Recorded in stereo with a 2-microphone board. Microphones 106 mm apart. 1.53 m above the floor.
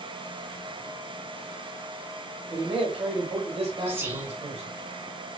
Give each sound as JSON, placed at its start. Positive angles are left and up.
{"t": 2.5, "sound": "a man speaking", "side_deg": -60, "distance_m": 0.9}
{"t": 3.9, "sound": "whispering", "side_deg": -25, "distance_m": 1.0}